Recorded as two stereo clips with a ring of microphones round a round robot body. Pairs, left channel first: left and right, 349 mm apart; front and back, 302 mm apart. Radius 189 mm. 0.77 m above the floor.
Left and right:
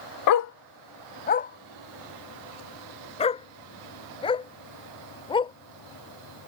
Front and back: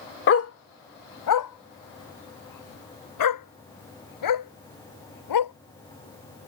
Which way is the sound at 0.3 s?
50° left.